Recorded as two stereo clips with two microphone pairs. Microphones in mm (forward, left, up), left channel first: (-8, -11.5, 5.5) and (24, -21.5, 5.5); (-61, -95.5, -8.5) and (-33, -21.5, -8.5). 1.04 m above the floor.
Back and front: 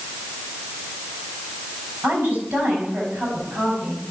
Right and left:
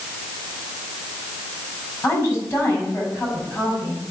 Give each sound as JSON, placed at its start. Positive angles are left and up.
{"t": 2.0, "sound": "a woman speaking", "azimuth_deg": -50, "distance_m": 6.0}